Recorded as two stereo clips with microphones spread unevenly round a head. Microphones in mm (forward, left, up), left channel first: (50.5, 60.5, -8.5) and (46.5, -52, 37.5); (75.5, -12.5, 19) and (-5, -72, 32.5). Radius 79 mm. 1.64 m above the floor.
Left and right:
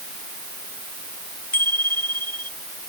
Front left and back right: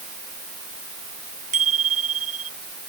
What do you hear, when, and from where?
1.5 s a bicycle bell: 170° left